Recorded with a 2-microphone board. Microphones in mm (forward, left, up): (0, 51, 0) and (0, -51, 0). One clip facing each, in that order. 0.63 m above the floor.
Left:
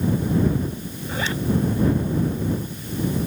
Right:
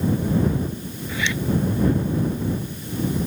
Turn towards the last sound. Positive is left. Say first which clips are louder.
# even
turn(degrees=40)  # may be behind; listen again after turning